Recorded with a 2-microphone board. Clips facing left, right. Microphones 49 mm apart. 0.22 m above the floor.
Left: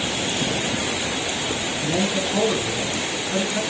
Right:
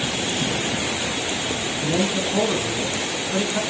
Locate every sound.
1.8 s a man speaking: 10° right (ahead or behind), 2.5 m